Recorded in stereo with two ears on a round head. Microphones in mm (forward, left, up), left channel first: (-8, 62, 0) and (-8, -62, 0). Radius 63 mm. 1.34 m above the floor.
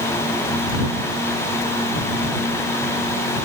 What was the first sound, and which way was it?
Only background noise.